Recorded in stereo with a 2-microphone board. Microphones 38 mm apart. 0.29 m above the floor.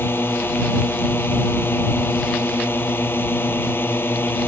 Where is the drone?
70° left (ahead or behind); by 4.5 s 65° left (ahead or behind).